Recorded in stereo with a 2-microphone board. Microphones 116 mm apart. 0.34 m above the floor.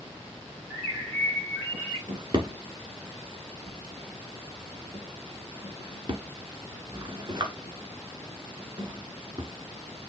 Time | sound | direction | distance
0.7 | a bird | 15° right (ahead or behind) | 3.5 m
2.1 | a drawer | 40° right (ahead or behind) | 1.3 m